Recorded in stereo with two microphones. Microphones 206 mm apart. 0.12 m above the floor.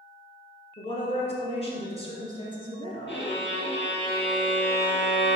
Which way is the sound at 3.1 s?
60° left (ahead or behind).